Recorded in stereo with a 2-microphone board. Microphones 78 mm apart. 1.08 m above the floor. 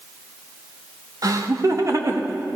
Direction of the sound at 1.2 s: 55° right (ahead or behind).